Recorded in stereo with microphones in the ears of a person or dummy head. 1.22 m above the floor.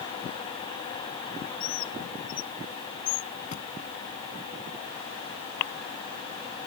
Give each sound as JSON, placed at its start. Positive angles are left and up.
{"t": 1.6, "sound": "a bird", "side_deg": 60}
{"t": 3.5, "sound": "a thud", "side_deg": 35}